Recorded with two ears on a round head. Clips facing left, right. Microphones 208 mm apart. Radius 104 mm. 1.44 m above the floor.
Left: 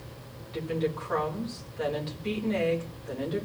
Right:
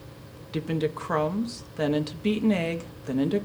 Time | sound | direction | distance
0.5 | a woman speaking | 65° right (ahead or behind) | 1.7 m